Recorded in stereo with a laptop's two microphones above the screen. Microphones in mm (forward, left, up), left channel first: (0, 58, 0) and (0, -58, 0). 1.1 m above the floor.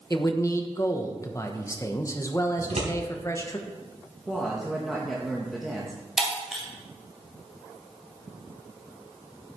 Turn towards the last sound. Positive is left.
turn(degrees=0)  # may be behind; listen again after turning